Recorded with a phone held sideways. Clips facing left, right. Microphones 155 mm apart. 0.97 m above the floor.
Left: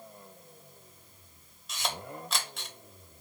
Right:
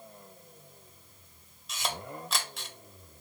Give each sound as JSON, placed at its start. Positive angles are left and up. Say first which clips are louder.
{"t": 1.7, "sound": "a camera shutter", "louder": "even", "side_deg": 0, "distance_m": 0.7}